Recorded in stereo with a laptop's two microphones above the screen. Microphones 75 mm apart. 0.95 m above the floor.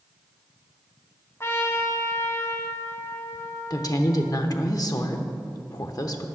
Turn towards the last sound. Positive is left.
turn(degrees=50)  # may be behind; listen again after turning